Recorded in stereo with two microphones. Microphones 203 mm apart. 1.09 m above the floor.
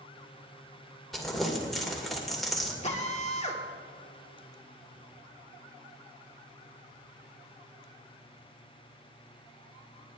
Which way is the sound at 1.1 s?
Centre (ahead or behind).